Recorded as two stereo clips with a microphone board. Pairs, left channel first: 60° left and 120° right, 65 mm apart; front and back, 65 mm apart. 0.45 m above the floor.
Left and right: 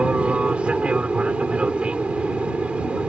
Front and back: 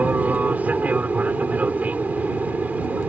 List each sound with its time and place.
0.0 s an aircraft: 165° right